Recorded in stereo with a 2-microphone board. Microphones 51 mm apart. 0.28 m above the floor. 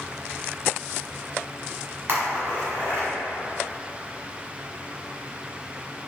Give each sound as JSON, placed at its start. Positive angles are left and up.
{"t": 2.1, "sound": "a splash", "side_deg": -45, "distance_m": 1.5}